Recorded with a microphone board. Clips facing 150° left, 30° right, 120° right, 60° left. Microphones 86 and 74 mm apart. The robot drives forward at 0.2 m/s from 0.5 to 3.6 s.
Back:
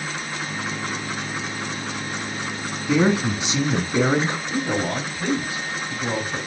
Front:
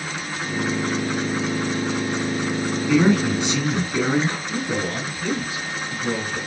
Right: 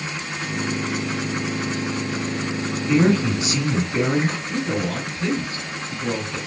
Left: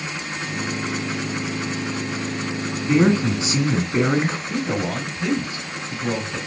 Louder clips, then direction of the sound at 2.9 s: Front 1 dB, left 1 dB; 100° left.